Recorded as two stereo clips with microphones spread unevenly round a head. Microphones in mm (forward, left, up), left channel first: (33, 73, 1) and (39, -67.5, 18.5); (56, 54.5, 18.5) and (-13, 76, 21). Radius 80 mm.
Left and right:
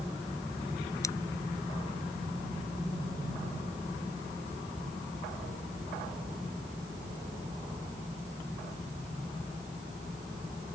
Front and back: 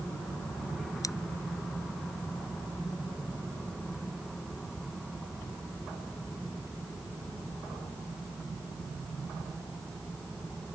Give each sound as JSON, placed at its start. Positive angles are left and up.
{"t": 1.0, "sound": "scissors", "azimuth_deg": 20}